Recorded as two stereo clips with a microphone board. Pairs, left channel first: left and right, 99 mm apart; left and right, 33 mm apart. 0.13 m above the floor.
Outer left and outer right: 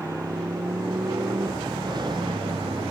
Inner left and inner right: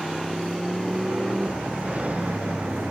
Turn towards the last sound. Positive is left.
turn(degrees=-60)  # may be behind; listen again after turning